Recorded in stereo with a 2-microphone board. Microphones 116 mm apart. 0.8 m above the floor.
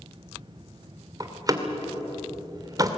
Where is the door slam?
30° right (ahead or behind), 2 m.